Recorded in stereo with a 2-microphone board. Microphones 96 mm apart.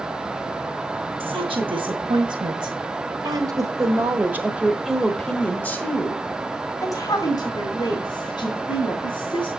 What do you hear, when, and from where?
1.2 s a woman speaking: 65° right (ahead or behind), 2 m; by 9.5 s 55° left (ahead or behind), 3 m